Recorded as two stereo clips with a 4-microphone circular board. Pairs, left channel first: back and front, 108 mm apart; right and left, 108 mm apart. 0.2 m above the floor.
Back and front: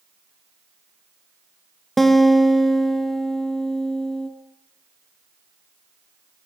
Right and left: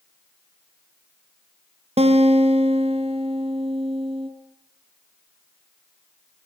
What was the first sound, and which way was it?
A guitar, 95° left.